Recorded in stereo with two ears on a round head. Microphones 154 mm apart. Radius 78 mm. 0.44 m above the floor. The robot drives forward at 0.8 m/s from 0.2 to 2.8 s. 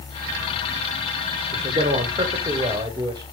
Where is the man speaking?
35° right (ahead or behind), 1.2 m; by 3.2 s 25° right (ahead or behind), 1.7 m.